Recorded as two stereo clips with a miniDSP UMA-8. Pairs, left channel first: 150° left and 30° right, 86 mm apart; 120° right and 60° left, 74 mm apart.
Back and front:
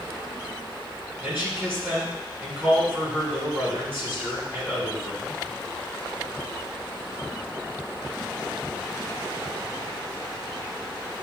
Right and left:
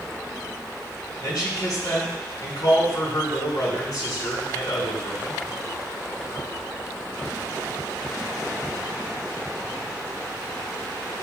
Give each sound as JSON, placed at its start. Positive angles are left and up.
{"t": 1.2, "sound": "a man speaking", "azimuth_deg": -95, "distance_m": 3.5}